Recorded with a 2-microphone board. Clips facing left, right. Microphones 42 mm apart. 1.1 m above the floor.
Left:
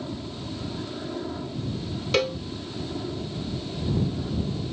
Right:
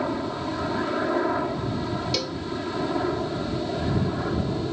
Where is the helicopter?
65° right (ahead or behind); by 4.7 s 60° right (ahead or behind).